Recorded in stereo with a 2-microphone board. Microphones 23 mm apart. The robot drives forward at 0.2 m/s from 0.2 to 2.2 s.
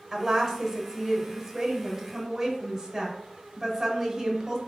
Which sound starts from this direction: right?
A woman speaking, at 0.1 s.